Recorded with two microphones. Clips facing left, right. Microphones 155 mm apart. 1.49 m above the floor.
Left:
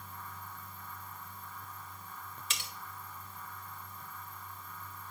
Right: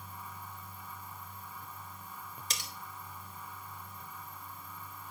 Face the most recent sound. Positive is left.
turn(degrees=-40)  # may be behind; listen again after turning